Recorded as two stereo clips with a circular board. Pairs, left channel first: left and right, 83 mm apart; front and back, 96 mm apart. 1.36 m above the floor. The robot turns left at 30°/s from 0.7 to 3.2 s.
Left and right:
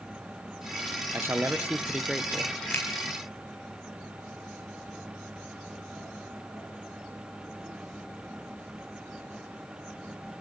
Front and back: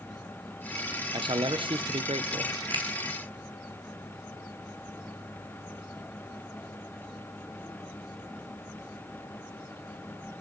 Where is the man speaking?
145° right, 0.7 m; by 2.5 s 170° left, 0.7 m.